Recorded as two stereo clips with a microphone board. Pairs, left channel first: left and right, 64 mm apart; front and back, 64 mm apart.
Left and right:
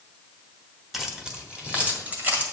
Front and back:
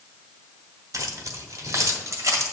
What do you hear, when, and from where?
0.9 s keys jangling: 175° right, 1.1 m; by 2.4 s 150° right, 2.0 m